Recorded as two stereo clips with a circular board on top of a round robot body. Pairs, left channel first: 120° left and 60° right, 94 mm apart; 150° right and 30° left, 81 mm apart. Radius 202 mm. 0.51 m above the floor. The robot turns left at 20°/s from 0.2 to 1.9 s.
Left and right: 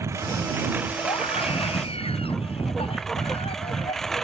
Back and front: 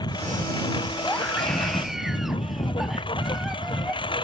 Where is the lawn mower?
120° right; by 4.2 s 155° right.